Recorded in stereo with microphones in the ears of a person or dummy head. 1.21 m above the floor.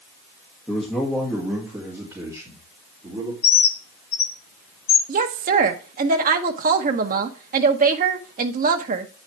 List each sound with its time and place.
0.7 s a man speaking: 5° left (ahead or behind), 1.7 m; by 3.3 s 20° right (ahead or behind), 3.5 m
3.4 s a bird: 30° left (ahead or behind), 0.8 m
5.1 s a woman speaking: 45° right (ahead or behind), 1.0 m